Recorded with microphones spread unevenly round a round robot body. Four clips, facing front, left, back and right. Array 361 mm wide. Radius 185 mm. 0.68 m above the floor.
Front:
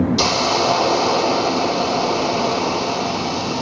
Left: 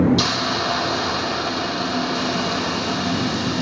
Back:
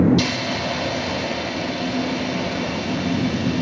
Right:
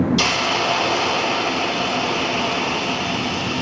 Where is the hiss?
5° right, 0.6 m.